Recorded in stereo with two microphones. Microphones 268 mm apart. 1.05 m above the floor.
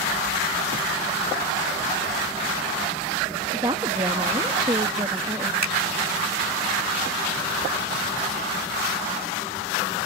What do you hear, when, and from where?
3.5 s a woman speaking: 15° right (ahead or behind)
5.6 s a finger snap: 85° right